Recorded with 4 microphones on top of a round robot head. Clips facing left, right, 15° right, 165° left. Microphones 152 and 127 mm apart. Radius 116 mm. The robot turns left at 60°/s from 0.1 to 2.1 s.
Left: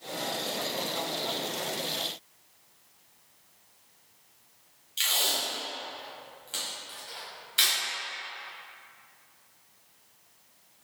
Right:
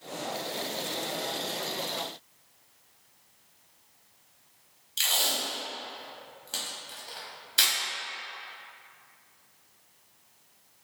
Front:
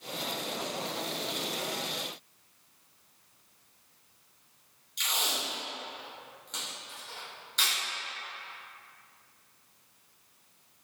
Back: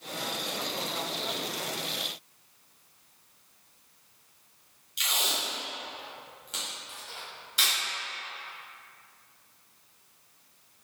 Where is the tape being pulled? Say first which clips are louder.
Right 1 dB, back 1 dB; 115° right, 0.9 m.